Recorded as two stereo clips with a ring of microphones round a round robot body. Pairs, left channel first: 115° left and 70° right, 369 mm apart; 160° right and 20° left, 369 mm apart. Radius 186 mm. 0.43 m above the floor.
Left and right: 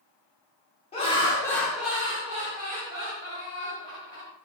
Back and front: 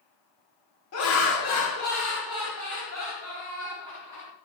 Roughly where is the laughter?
Behind.